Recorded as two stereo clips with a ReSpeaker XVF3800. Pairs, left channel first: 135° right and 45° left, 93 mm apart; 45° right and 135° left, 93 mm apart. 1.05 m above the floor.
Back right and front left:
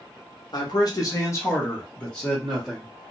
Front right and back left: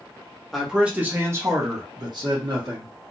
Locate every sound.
0.5 s a man speaking: 135° right, 1.0 m; by 2.9 s 130° left, 1.4 m